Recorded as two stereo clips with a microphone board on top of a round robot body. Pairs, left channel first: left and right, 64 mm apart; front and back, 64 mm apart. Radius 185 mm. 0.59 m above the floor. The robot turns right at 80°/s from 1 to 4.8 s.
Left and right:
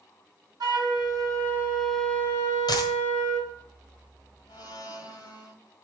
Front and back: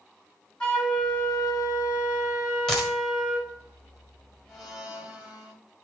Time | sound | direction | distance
0.6 | a flute | 75° right | 1.3 m
2.7 | a dropped coin | 85° left | 1.3 m
4.5 | a blender | 80° left | 1.8 m